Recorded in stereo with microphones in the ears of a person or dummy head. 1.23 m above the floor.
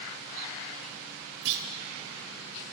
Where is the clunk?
70° right (ahead or behind), 2 m.